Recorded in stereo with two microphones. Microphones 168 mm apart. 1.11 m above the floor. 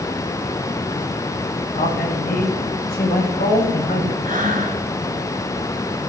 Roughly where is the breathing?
Right.